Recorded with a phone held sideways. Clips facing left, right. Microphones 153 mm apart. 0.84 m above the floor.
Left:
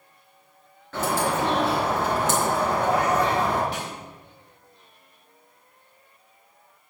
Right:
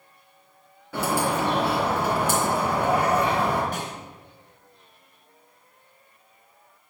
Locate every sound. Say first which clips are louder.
0.9 s a bird: even; 10° right (ahead or behind), 4.5 m
3.7 s a snare drum: right 1 dB; 45° right (ahead or behind), 4 m